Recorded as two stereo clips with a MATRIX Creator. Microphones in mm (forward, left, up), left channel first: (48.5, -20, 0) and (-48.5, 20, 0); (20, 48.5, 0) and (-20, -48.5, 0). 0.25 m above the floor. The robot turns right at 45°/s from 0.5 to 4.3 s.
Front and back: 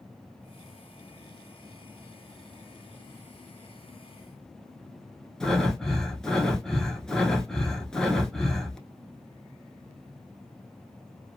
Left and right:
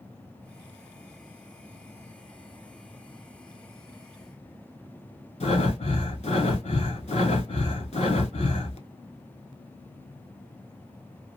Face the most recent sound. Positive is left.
turn(degrees=60)